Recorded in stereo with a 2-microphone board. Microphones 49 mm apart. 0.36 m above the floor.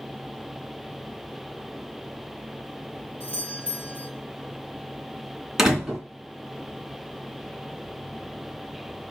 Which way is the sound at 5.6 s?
10° right (ahead or behind).